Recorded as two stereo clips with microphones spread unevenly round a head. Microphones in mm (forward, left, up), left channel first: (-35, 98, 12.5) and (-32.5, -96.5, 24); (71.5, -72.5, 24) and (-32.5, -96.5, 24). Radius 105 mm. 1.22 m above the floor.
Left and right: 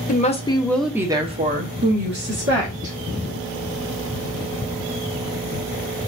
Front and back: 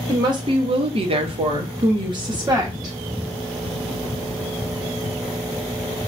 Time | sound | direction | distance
0.1 | a woman speaking | 130° left | 0.8 m